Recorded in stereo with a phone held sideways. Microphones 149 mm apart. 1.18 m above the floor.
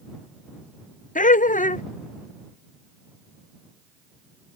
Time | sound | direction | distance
1.1 | laughter | 60° left (ahead or behind) | ?